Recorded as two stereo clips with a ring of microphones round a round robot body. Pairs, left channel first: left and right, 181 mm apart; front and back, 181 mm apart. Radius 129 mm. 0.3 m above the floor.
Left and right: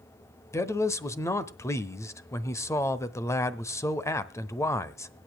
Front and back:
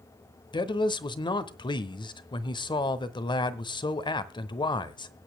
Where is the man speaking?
35° left, 1.0 m.